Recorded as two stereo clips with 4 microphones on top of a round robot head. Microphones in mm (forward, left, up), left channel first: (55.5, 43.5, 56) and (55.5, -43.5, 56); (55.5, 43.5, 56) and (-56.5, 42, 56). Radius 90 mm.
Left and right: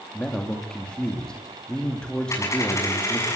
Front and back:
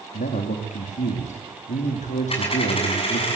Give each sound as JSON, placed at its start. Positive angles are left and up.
{"t": 0.1, "sound": "a man speaking", "azimuth_deg": 10, "distance_m": 2.5}
{"t": 2.3, "sound": "a dropped coin", "azimuth_deg": 35, "distance_m": 7.0}